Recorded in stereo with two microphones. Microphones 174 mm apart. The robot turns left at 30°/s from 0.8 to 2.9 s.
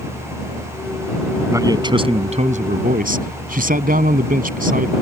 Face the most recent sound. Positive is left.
turn(degrees=-60)